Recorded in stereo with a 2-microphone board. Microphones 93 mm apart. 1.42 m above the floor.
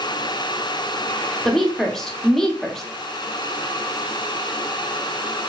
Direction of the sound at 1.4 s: 5° left (ahead or behind).